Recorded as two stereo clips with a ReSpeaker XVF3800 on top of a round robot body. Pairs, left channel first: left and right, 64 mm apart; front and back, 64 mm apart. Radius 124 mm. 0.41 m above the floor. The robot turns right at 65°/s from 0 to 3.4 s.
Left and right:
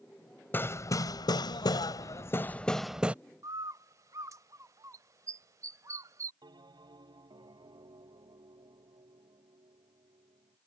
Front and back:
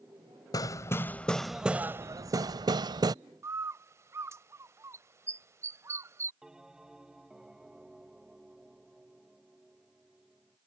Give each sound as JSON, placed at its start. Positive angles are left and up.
{"t": 0.5, "sound": "hammering", "azimuth_deg": 30}
{"t": 3.4, "sound": "a bird", "azimuth_deg": -135}
{"t": 6.4, "sound": "a bell", "azimuth_deg": -100}